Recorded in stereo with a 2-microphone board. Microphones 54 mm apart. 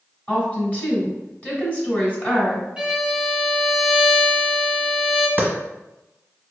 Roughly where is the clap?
Right.